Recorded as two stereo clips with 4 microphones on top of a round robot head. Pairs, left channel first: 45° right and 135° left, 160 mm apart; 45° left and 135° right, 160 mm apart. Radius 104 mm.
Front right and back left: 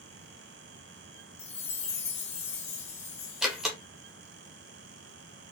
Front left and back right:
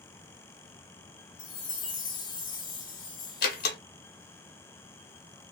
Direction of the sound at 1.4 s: 10° right.